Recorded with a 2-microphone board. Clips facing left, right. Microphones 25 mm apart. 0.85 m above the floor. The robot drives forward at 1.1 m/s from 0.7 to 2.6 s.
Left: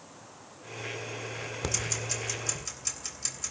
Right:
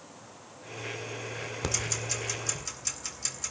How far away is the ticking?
About 2 m.